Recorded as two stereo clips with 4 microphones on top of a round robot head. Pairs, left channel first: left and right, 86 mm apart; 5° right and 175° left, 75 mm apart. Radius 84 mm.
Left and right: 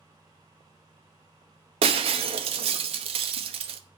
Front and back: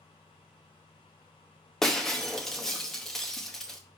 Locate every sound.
1.8 s breaking glass: 90° right, 0.8 m